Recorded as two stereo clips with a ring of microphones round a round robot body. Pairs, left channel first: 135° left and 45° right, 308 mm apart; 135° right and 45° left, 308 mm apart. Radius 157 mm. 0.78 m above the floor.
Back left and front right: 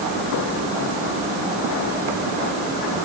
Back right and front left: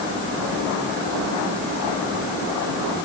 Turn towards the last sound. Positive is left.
No sound to turn to.